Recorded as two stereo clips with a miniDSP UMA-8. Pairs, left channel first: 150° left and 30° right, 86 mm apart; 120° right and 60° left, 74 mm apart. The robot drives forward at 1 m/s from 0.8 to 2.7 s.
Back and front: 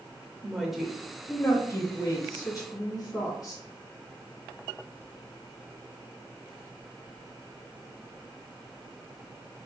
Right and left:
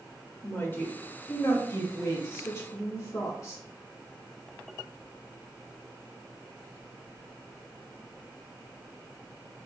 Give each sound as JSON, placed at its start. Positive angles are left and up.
{"t": 0.4, "sound": "a woman speaking", "azimuth_deg": -115, "distance_m": 0.9}